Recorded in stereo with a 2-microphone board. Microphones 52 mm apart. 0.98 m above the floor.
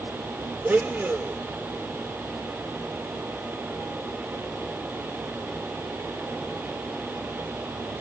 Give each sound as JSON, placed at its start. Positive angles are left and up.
{"t": 0.6, "sound": "a blender", "side_deg": -40, "distance_m": 0.7}